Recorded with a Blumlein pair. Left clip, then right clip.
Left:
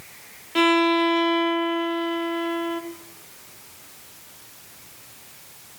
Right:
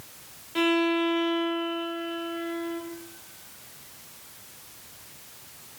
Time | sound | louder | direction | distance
0.6 | a violin | left 6 dB | 15° left | 1.5 m